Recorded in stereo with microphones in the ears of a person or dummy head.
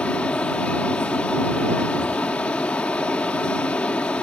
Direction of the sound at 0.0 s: 10° left (ahead or behind).